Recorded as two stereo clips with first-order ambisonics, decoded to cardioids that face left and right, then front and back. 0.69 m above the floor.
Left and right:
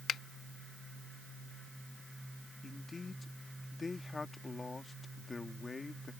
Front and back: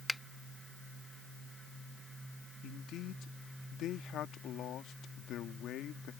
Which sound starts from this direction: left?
A finger snap, at 0.1 s.